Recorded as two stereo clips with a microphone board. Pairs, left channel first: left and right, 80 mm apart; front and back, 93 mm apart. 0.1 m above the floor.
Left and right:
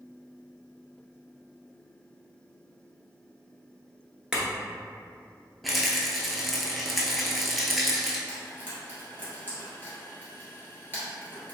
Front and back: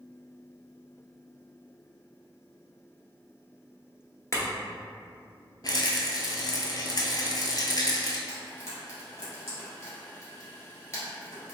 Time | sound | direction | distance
4.3 | a clink | 15° right | 0.8 m
5.6 | a rattle | straight ahead | 0.6 m
8.3 | frying | 40° right | 1.5 m